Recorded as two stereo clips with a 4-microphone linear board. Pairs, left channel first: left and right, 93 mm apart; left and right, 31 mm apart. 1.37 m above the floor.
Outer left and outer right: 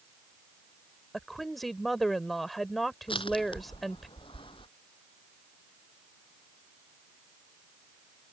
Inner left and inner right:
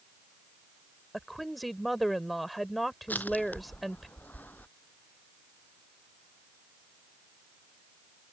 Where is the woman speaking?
Centre (ahead or behind).